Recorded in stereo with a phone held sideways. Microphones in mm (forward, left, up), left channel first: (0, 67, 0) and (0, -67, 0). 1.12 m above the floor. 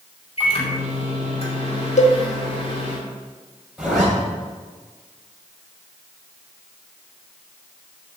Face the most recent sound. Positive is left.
turn(degrees=-5)  # may be behind; listen again after turning